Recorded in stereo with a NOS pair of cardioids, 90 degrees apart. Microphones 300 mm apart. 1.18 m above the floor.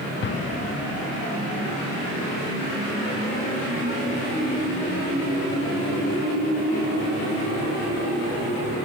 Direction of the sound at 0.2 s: 40° left.